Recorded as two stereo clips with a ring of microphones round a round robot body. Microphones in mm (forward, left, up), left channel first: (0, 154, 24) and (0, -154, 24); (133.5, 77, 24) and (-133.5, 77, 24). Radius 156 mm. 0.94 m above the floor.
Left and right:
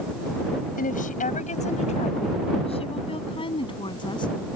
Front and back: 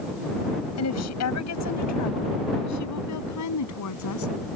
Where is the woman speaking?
25° left; by 4.3 s 15° left.